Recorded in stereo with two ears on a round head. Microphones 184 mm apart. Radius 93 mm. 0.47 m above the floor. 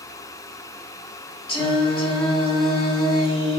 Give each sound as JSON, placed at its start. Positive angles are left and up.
{"t": 1.5, "sound": "singing", "side_deg": 25, "distance_m": 0.9}